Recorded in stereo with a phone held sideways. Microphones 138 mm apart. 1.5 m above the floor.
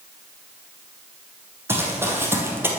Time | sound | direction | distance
1.7 | running footsteps | 15° right (ahead or behind) | 3 m